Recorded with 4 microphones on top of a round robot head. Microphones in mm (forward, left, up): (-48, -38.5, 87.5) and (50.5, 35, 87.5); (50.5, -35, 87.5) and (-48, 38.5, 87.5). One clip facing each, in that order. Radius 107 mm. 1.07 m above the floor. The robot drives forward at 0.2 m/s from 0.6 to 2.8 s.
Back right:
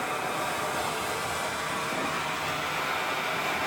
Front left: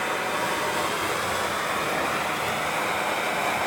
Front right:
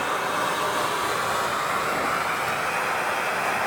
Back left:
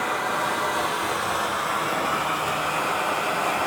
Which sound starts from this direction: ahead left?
Running water, at 0.0 s.